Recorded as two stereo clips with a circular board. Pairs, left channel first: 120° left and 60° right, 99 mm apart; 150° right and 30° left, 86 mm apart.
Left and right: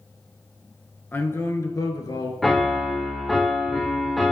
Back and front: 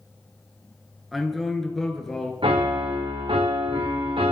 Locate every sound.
1.1 s a man speaking: 115° left, 1.3 m; by 2.3 s 130° left, 1.6 m
2.4 s a piano: 30° left, 1.8 m